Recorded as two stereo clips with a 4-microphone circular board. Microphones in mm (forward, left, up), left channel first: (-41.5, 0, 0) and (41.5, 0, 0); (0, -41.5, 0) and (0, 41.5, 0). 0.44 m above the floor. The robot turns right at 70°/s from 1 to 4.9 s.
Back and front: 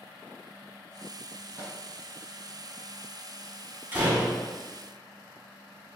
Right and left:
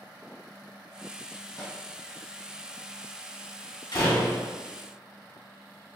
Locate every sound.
1.6 s a microwave: 60° right, 1.9 m; by 1.8 s 45° right, 1.9 m
3.9 s a door slam: 70° right, 1.5 m; by 4.5 s 25° right, 1.5 m